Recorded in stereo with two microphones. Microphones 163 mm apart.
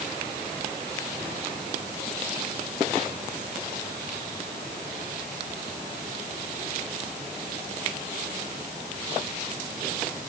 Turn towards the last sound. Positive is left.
No sound to turn to.